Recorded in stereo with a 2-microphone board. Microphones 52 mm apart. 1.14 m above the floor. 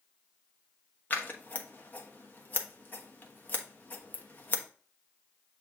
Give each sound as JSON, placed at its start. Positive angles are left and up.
{"t": 1.1, "sound": "scissors", "side_deg": 35, "distance_m": 1.2}